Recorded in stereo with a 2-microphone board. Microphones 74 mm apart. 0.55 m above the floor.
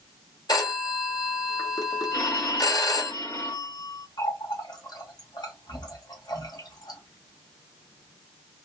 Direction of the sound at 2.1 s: 45° left (ahead or behind).